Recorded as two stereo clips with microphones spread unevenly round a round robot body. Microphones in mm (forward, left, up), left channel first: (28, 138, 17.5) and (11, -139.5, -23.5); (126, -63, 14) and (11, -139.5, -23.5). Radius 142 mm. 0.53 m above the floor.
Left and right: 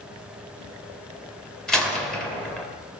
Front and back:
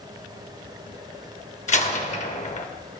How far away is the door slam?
About 1.8 m.